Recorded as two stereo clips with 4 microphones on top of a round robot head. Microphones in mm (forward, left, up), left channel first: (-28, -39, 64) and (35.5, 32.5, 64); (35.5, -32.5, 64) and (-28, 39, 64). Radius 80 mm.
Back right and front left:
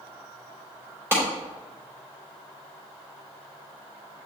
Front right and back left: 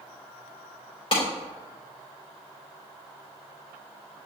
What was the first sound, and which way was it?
A clap, 15° right.